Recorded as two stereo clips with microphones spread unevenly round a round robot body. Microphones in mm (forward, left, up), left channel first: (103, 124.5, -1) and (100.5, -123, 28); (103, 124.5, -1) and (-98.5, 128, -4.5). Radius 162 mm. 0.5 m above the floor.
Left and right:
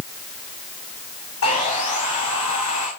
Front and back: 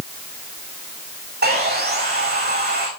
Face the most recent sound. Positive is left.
turn(degrees=140)